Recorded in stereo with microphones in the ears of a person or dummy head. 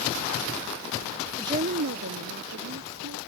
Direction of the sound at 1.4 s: 5° right (ahead or behind).